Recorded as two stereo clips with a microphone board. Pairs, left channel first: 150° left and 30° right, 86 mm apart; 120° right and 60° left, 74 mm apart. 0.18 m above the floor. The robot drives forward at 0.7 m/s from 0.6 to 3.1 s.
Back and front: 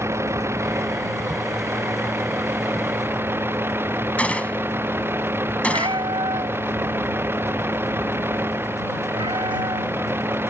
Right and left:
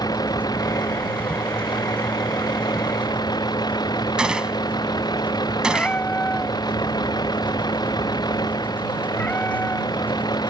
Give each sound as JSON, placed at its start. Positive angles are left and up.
{"t": 0.0, "sound": "a vehicle", "azimuth_deg": -90}
{"t": 4.2, "sound": "a gunshot", "azimuth_deg": 115}
{"t": 5.7, "sound": "a cat meowing", "azimuth_deg": -50}